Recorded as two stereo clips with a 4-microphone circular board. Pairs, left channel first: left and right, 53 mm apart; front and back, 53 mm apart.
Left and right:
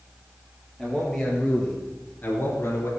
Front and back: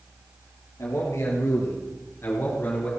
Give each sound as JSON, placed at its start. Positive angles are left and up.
{"t": 0.8, "sound": "a man speaking", "azimuth_deg": 5, "distance_m": 4.0}